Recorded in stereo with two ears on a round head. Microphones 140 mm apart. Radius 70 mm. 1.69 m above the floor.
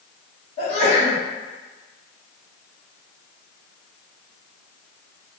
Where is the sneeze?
40° left (ahead or behind), 1.9 m.